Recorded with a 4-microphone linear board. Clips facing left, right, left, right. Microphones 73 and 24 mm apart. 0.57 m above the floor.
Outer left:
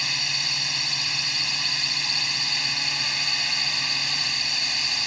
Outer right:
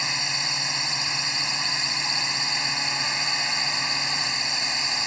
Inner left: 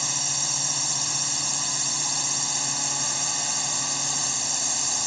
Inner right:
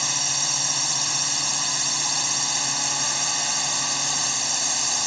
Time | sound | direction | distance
0.0 | a drone | 25° right (ahead or behind) | ?